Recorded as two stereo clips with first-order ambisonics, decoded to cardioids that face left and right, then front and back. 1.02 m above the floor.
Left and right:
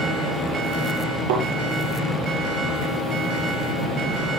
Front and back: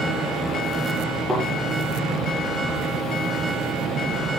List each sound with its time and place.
1.3 s a thud: 90° right, 9.5 m